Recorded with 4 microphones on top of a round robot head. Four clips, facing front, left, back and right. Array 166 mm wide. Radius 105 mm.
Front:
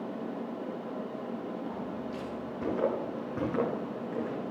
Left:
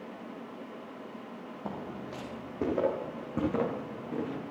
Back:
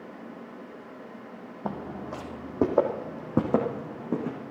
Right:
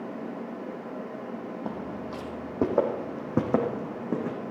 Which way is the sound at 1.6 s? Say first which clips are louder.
Right 1 dB, back 2 dB; 170° right.